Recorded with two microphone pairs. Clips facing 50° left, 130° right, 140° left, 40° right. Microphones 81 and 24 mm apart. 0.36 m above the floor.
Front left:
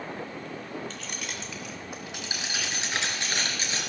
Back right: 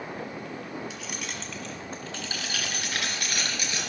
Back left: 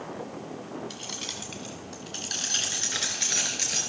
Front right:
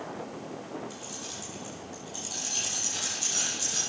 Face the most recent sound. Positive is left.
turn(degrees=110)